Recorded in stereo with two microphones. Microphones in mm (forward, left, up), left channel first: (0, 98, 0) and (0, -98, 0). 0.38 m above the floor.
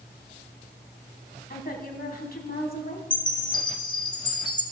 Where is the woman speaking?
50° left (ahead or behind), 3 m.